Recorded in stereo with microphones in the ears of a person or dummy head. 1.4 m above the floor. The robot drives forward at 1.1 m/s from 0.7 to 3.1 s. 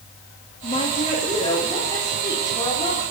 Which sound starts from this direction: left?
A woman speaking, at 0.6 s.